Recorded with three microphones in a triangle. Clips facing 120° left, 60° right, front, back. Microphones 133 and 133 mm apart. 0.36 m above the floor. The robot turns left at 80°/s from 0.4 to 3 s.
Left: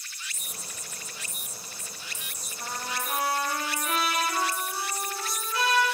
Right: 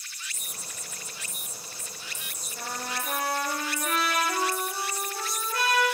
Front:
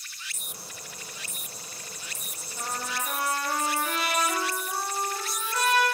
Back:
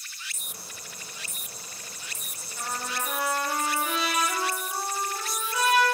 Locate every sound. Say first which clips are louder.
2.6 s a trumpet: even, even; 70° right, 9 m; by 5.8 s 105° right, 9 m